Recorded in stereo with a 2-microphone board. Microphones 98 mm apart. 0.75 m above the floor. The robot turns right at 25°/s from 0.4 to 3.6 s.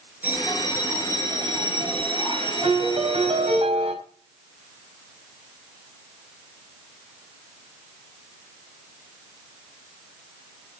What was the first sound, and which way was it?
A bell, 165° right.